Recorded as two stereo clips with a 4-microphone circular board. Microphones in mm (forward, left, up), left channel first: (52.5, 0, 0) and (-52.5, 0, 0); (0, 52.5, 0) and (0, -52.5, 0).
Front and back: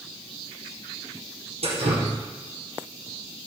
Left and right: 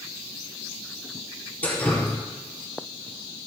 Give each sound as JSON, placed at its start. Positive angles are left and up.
{"t": 1.6, "sound": "dripping", "azimuth_deg": 165, "distance_m": 4.0}